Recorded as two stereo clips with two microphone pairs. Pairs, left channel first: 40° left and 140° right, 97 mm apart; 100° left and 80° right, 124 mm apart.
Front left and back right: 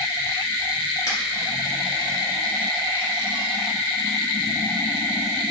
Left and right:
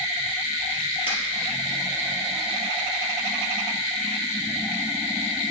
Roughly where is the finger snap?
Left.